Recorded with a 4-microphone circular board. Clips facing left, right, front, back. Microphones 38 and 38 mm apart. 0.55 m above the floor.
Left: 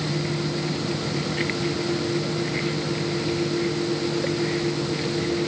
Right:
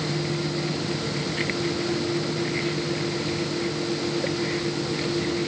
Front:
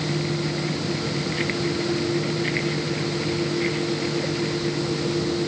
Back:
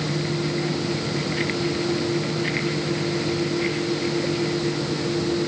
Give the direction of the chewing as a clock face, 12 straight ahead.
I don't hear chewing.